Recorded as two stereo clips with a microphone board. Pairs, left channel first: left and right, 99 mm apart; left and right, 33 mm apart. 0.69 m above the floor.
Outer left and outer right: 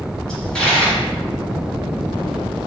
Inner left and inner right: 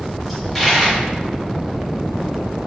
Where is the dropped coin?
5° left (ahead or behind), 1.9 m.